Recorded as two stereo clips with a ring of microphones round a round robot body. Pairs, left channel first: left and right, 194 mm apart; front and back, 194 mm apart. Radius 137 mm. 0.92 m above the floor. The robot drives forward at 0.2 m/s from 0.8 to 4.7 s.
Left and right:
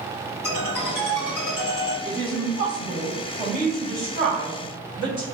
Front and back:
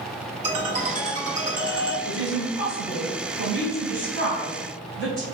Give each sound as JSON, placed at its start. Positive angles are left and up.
{"t": 0.4, "sound": "a ringtone", "azimuth_deg": 125, "distance_m": 1.5}
{"t": 2.0, "sound": "a woman speaking", "azimuth_deg": 155, "distance_m": 1.7}